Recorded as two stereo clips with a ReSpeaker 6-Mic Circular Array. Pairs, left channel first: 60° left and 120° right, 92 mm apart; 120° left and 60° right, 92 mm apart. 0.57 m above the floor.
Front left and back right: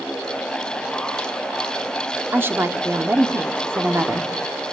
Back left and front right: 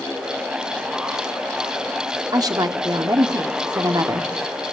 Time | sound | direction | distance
2.3 | a woman speaking | 70° right | 1.4 m